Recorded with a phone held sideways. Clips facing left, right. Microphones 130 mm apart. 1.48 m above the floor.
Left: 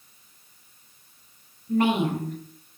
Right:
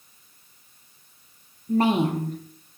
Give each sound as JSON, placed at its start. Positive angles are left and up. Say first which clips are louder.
{"t": 1.7, "sound": "a woman speaking", "louder": "right 1 dB", "side_deg": -35, "distance_m": 0.5}